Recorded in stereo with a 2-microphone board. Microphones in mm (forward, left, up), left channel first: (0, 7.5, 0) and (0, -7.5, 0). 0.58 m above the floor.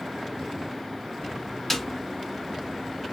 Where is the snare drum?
20° left (ahead or behind), 0.9 m.